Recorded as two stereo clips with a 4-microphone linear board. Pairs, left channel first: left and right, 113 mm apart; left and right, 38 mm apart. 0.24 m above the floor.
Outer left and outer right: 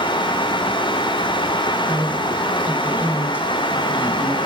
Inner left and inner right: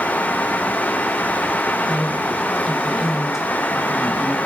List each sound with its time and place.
1.9 s a woman speaking: 10° right (ahead or behind), 3 m